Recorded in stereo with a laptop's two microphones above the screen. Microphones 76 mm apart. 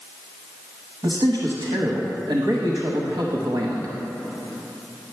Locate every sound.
1.0 s a man speaking: 75° right (ahead or behind), 0.8 m